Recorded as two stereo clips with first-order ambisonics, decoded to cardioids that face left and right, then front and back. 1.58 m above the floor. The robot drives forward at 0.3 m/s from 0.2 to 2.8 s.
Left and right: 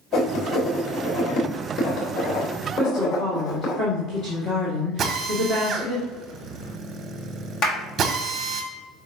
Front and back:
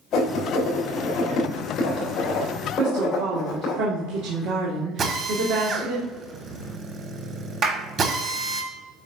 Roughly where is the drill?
Behind right.